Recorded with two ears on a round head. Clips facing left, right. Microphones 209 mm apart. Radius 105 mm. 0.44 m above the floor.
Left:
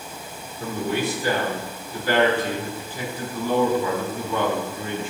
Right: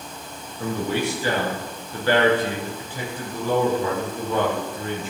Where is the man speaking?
65° right (ahead or behind), 7 m; by 5.1 s 45° right (ahead or behind), 7.5 m.